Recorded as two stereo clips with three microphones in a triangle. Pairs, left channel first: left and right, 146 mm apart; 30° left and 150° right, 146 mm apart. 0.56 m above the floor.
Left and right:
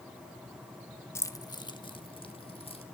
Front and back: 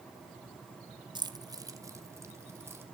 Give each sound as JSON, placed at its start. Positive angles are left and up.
{"t": 1.1, "sound": "keys jangling", "azimuth_deg": 160, "distance_m": 0.9}